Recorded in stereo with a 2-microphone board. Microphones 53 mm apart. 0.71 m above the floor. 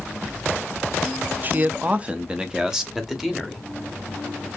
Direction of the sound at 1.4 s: 35° right (ahead or behind).